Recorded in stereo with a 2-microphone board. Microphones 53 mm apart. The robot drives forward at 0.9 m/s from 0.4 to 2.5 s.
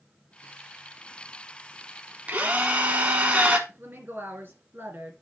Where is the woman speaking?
40° right (ahead or behind), 2.5 m.